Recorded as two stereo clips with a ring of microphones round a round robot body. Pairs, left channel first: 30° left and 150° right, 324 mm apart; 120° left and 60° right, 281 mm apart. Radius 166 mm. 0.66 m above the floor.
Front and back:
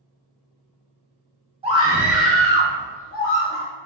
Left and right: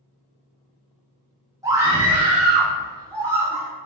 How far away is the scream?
About 1.0 m.